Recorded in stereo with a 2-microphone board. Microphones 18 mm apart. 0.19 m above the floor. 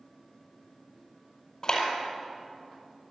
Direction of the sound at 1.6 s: 40° left (ahead or behind).